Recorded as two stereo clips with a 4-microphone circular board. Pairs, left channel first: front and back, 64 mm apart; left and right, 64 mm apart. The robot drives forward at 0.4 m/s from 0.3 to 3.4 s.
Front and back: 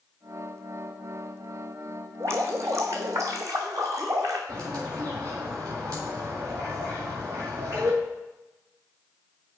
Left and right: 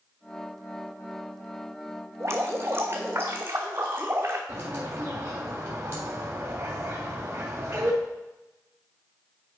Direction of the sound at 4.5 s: 145° right.